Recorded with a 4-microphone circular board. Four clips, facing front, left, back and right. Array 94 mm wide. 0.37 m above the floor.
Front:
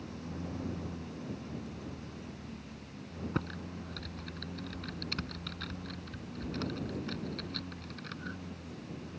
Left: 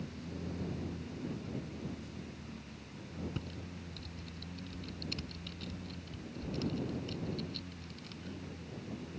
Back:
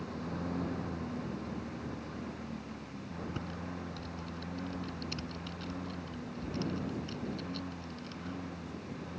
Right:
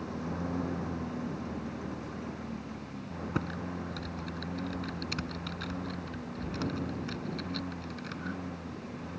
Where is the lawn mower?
115° right.